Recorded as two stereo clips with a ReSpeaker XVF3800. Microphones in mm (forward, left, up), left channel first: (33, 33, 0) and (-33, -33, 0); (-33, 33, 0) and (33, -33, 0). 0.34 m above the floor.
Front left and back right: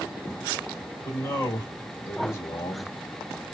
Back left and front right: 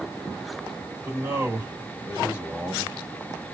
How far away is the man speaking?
About 2 m.